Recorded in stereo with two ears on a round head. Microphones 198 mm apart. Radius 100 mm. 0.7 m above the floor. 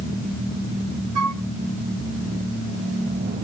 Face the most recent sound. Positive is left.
turn(degrees=-85)